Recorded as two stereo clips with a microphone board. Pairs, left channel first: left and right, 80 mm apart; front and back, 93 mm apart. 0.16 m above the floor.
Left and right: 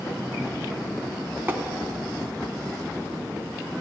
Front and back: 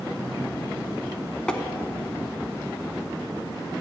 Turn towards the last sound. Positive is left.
turn(degrees=-70)